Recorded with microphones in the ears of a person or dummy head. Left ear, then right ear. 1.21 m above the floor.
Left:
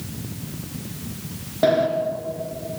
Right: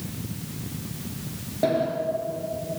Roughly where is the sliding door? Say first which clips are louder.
Left 5 dB; left.